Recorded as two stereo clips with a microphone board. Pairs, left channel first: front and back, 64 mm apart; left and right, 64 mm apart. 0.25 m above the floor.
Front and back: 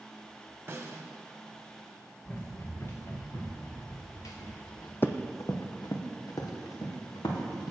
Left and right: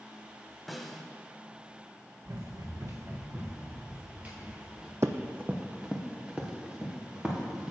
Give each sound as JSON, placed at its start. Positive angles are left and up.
{"t": 0.7, "sound": "a snare drum", "azimuth_deg": 180, "distance_m": 1.0}
{"t": 2.2, "sound": "running footsteps", "azimuth_deg": -65, "distance_m": 1.4}
{"t": 5.0, "sound": "running footsteps", "azimuth_deg": -50, "distance_m": 0.5}